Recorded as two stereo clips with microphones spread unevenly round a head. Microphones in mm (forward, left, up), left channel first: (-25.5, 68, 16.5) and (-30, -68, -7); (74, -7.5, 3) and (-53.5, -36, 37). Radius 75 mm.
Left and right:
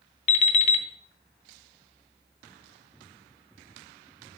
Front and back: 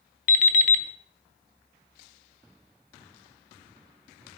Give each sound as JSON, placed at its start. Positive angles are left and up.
{"t": 0.3, "sound": "an alarm clock", "azimuth_deg": 55, "distance_m": 1.0}